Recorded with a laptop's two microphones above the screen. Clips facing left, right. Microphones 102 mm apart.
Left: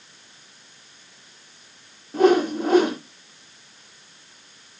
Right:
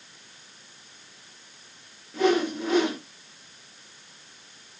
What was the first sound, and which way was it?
A whoosh, 45° left (ahead or behind).